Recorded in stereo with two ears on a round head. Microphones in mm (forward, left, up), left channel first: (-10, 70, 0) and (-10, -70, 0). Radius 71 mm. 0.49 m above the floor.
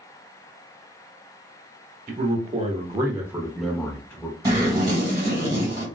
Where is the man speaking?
55° right (ahead or behind), 1.1 m; by 4.3 s 15° left (ahead or behind), 1.3 m.